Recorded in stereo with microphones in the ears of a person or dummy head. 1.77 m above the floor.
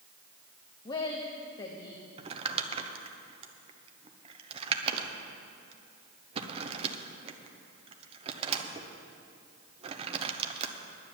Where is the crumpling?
35° right (ahead or behind), 0.9 m.